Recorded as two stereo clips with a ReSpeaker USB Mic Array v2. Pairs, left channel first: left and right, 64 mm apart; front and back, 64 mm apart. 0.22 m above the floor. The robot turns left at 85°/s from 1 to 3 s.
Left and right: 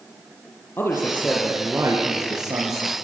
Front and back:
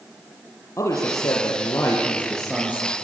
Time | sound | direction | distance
0.8 | a man speaking | 40° left | 6 m